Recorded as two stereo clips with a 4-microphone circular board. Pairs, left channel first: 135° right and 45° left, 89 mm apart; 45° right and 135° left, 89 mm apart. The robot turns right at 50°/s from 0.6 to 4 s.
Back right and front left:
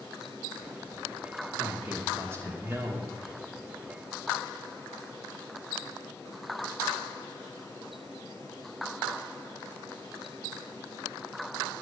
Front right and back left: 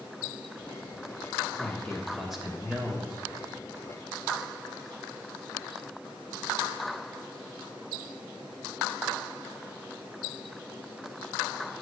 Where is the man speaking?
15° left, 1.1 m; by 3.1 s 90° left, 1.1 m.